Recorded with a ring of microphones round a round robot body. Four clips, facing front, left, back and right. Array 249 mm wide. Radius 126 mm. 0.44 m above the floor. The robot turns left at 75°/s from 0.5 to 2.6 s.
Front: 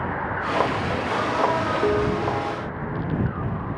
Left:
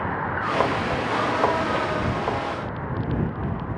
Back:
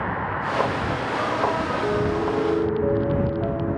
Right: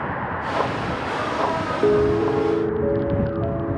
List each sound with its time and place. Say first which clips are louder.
1.8 s a piano: right 8 dB, even; 75° right; by 3.8 s 130° right